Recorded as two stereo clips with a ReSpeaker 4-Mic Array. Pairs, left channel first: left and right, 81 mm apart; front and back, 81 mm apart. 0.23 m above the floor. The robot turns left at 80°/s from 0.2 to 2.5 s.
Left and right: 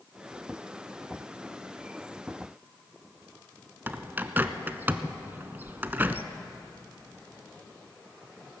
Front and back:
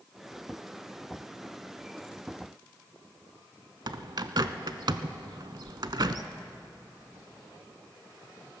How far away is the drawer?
No drawer in this recording.